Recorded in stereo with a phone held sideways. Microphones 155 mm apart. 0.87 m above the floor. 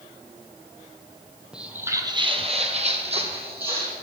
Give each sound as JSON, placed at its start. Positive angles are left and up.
{"t": 1.5, "sound": "footsteps", "side_deg": -5, "distance_m": 1.3}